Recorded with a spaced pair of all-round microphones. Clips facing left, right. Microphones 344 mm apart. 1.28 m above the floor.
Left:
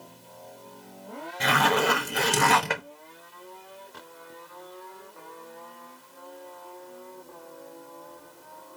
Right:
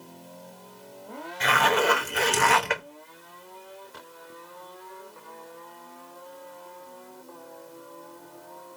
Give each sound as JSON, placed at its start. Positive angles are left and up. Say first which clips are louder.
{"t": 1.4, "sound": "a zipper", "louder": "even", "side_deg": 50, "distance_m": 0.9}